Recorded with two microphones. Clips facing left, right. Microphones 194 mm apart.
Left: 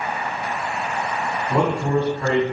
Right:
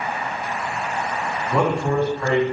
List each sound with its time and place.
1.5 s a man speaking: 25° left (ahead or behind), 1.3 m